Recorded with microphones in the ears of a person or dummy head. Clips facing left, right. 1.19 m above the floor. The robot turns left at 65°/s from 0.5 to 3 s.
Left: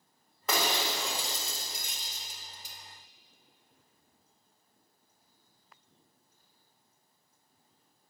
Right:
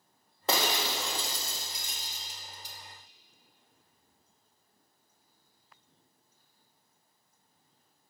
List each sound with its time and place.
0.5 s breaking glass: 35° right (ahead or behind), 1.1 m; by 2.8 s 65° left (ahead or behind), 1.1 m